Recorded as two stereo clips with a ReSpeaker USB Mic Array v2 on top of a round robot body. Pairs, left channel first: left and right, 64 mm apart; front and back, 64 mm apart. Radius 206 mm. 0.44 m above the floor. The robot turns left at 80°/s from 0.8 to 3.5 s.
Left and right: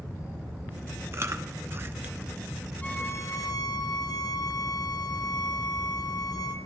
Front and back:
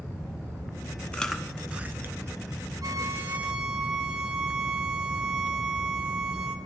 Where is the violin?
160° left, 1.7 m; by 6.6 s 105° left, 1.7 m.